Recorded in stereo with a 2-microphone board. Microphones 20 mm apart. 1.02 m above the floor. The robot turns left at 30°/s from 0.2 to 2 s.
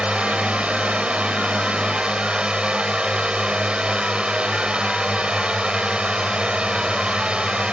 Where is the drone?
65° right; by 7.7 s 120° right.